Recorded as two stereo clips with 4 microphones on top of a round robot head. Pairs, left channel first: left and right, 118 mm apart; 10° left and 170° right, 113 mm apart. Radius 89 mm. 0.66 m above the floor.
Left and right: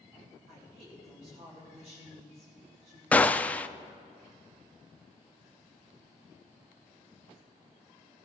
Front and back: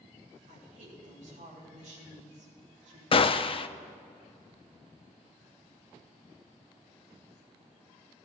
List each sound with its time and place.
0.5 s a woman speaking: 140° right, 5 m
3.1 s a gunshot: 15° left, 0.6 m